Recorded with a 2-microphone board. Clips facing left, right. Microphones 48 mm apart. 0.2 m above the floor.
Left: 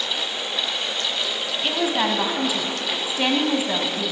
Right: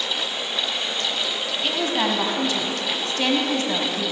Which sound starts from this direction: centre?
A woman speaking, at 1.6 s.